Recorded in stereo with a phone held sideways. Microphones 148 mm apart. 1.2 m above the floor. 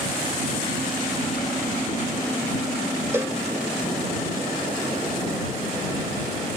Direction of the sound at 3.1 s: 15° right (ahead or behind).